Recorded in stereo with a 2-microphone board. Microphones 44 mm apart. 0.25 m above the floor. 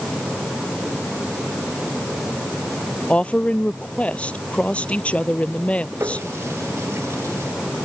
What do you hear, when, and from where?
3.1 s a woman speaking: 30° left (ahead or behind)
6.0 s a running tap: 80° right